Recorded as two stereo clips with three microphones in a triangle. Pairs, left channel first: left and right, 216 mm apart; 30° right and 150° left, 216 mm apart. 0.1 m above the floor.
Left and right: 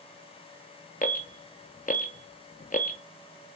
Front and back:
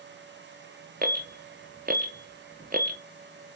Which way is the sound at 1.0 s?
125° left.